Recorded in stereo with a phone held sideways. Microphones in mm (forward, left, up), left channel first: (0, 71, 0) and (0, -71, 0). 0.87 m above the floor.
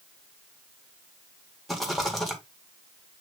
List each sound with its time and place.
1.7 s a rattle: centre (ahead or behind), 2.0 m